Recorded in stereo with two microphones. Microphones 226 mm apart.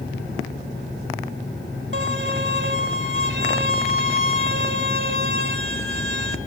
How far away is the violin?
About 1.8 m.